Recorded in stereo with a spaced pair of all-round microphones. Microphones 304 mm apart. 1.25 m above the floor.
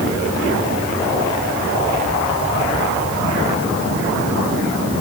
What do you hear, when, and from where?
Only background noise.